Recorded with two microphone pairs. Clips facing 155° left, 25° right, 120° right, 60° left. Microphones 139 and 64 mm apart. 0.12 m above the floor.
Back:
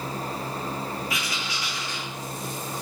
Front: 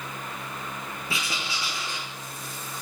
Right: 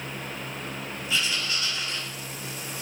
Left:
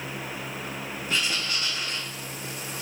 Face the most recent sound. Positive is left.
turn(degrees=30)